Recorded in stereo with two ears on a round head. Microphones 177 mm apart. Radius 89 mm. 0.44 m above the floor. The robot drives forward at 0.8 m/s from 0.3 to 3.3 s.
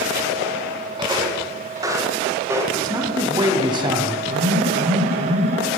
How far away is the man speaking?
About 3.5 m.